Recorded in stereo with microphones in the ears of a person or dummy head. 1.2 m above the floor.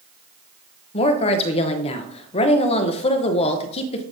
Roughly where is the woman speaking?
Left.